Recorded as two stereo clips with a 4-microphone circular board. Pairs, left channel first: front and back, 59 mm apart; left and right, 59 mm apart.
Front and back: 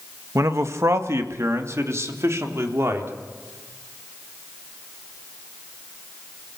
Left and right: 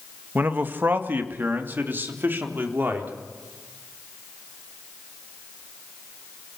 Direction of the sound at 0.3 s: 145° right.